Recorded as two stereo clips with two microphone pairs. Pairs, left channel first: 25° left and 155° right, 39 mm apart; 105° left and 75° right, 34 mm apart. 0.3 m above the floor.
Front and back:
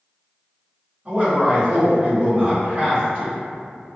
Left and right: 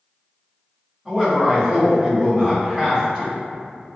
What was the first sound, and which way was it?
A man speaking, straight behind.